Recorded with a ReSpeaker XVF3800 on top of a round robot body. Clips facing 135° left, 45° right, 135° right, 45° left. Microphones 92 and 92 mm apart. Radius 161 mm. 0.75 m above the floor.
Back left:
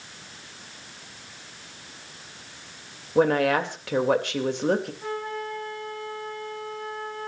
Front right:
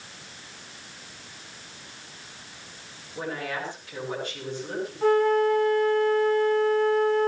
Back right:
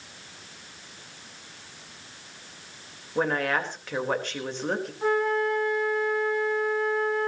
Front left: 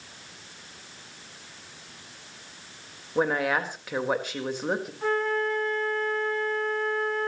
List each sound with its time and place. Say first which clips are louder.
3.1 s a woman speaking: back left 12 dB, front left 1 dB; 130° left, 3.5 m
5.0 s a flute: front right 12 dB, back right 3 dB; 55° right, 2.5 m